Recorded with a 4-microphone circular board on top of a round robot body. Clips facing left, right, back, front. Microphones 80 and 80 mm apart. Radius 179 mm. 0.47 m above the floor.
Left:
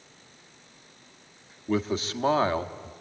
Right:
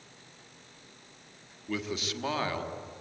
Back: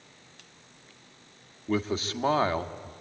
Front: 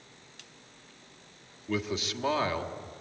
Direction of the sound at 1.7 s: 135° left.